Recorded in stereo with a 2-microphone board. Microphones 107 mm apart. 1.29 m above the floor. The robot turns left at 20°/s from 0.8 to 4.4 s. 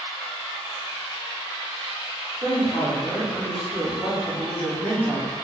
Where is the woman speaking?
25° left, 1.4 m; by 5.3 s 15° right, 1.4 m.